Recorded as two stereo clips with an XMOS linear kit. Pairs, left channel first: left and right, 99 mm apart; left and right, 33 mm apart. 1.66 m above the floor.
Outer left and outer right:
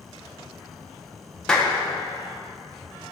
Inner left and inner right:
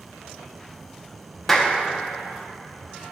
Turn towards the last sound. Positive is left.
turn(degrees=5)  # may be behind; listen again after turning